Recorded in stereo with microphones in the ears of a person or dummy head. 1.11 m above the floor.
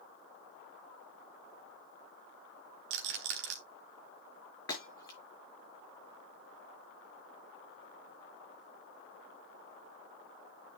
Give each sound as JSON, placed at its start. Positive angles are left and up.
{"t": 2.9, "sound": "a rattle", "side_deg": -65, "distance_m": 1.6}
{"t": 4.7, "sound": "breaking glass", "side_deg": 15, "distance_m": 5.0}